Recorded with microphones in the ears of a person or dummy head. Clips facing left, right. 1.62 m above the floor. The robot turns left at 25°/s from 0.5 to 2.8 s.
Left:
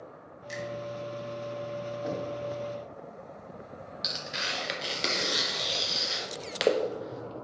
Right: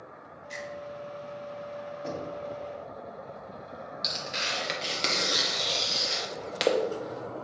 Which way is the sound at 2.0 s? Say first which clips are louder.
Left 1 dB; 5° left (ahead or behind).